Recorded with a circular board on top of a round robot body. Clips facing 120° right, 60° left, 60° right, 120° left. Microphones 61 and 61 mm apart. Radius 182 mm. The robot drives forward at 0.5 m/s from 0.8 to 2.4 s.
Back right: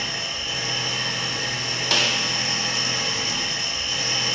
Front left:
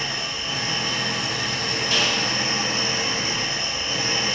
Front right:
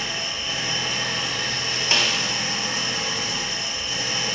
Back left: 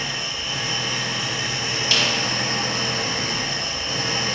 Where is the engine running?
30° left, 0.9 m; by 4.3 s 105° left, 0.6 m.